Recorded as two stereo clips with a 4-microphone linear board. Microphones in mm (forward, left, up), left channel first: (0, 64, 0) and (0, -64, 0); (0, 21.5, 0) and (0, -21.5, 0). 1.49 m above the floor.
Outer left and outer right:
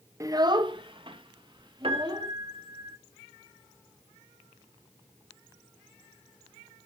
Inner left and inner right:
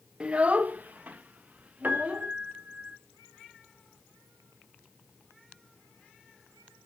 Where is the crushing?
No crushing in this recording.